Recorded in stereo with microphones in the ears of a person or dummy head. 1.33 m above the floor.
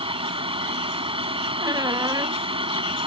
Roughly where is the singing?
No singing in this recording.